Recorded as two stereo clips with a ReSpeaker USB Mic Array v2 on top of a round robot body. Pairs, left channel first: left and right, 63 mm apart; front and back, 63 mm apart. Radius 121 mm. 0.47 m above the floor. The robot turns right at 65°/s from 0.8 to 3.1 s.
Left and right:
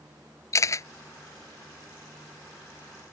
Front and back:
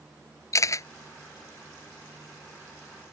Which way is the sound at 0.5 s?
45° left.